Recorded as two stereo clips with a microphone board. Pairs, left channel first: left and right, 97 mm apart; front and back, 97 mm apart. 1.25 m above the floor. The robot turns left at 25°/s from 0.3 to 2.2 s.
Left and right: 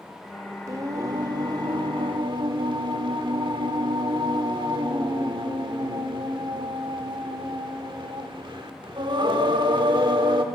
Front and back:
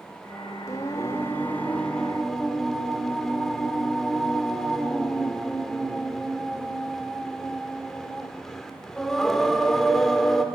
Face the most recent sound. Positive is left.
turn(degrees=-85)